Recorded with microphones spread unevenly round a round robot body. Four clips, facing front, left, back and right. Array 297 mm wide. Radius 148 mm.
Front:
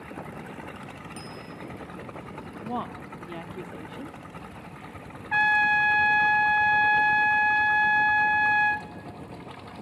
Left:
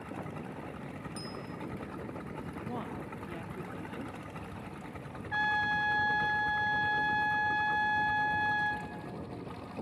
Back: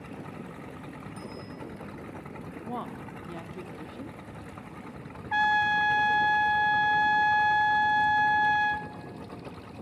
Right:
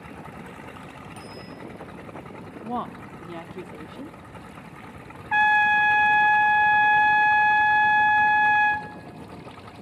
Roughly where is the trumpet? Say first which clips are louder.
Right 12 dB, front 2 dB; right.